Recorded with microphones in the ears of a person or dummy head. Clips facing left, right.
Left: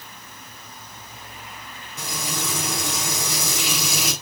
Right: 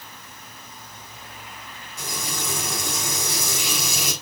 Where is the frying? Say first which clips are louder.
Left 2 dB; 65° left (ahead or behind), 8.5 m.